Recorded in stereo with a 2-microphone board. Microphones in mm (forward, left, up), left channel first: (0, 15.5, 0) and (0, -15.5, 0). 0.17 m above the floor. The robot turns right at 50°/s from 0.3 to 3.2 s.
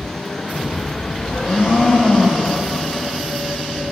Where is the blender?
95° left, 6 m; by 2.7 s 165° left, 6 m.